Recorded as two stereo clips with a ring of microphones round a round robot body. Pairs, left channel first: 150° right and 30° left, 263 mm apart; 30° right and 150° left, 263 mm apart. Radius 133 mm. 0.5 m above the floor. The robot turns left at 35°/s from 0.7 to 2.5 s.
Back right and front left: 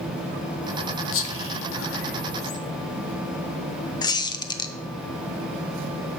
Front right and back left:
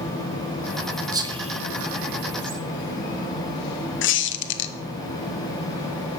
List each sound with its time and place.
1.1 s whispering: 135° right, 1.3 m; by 2.6 s 175° left, 1.3 m
4.0 s a squeak: 75° right, 0.7 m